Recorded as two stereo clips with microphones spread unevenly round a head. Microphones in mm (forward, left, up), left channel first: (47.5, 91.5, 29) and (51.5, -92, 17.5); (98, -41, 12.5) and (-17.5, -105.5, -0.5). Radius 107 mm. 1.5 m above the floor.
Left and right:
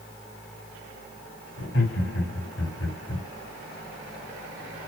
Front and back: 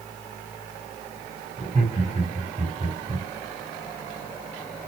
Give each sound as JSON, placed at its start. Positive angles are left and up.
{"t": 1.6, "sound": "laughter", "azimuth_deg": 100, "distance_m": 6.0}